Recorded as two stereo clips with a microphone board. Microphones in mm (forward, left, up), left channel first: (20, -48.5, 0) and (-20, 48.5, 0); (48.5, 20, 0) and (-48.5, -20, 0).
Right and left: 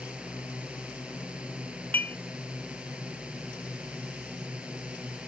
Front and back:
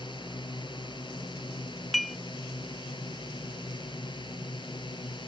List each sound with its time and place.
0.0 s a drone: 35° left
1.9 s dishes clattering: 65° right